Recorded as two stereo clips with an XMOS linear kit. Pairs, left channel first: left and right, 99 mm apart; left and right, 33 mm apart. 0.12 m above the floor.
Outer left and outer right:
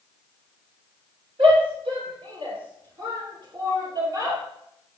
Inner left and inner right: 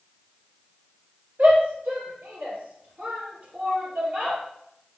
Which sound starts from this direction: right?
A shout, at 1.4 s.